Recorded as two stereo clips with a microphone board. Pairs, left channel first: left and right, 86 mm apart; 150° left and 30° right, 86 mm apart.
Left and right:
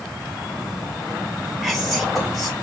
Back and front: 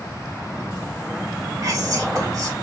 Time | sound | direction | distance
1.6 | whispering | straight ahead | 1.8 m